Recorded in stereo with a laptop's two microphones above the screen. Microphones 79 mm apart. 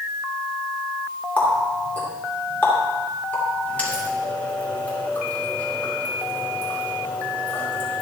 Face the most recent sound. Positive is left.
turn(degrees=20)  # may be behind; listen again after turning